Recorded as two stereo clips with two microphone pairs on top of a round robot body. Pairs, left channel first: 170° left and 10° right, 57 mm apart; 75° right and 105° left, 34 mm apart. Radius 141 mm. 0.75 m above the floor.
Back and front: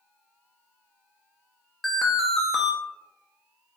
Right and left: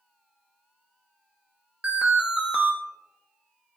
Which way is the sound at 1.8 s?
75° left.